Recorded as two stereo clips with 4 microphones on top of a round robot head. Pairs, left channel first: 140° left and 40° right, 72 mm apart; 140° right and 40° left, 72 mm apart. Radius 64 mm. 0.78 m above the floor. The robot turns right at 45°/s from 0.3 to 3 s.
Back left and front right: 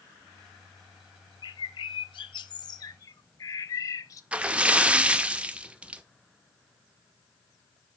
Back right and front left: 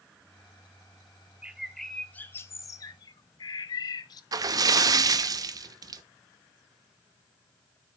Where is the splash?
30° left, 0.8 m.